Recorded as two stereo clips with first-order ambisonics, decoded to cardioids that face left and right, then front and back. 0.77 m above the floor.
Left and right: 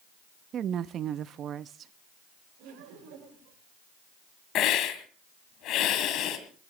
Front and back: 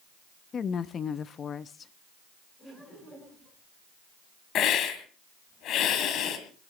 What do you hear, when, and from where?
0.5 s a woman speaking: 50° right, 0.5 m
2.6 s laughter: 70° right, 8.5 m
4.5 s a hiss: 50° left, 1.8 m